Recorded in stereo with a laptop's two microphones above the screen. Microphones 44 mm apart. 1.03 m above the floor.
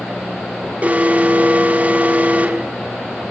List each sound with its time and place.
0.8 s an alarm: 35° right (ahead or behind), 1.9 m